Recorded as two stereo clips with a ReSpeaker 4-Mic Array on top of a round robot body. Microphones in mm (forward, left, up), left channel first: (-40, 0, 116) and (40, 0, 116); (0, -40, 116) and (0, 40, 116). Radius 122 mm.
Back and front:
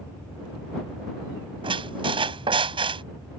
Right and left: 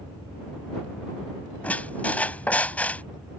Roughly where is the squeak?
Ahead.